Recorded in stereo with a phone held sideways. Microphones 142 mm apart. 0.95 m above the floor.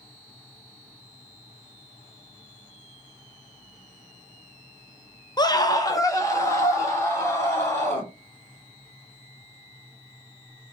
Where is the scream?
30° left (ahead or behind), 0.5 m; by 8.1 s 20° left (ahead or behind), 2 m.